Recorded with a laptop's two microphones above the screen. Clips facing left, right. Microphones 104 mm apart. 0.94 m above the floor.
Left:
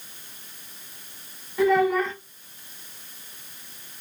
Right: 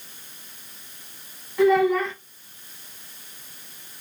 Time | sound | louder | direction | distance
1.6 | a child speaking | right 2 dB | centre (ahead or behind) | 2.5 m